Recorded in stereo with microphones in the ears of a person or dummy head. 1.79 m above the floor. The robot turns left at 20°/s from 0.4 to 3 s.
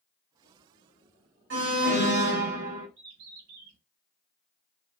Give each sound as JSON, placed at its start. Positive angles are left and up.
{"t": 1.5, "sound": "an alarm", "side_deg": -60, "distance_m": 1.5}
{"t": 3.0, "sound": "a bird", "side_deg": -35, "distance_m": 1.9}